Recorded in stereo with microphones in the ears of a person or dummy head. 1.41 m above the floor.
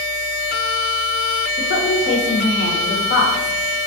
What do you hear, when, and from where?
1.6 s a woman speaking: 60° left (ahead or behind), 1.0 m